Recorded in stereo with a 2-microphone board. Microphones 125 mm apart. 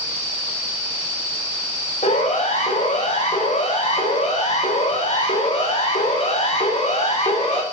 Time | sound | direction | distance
2.0 | a siren | 75° left (ahead or behind) | 7.5 m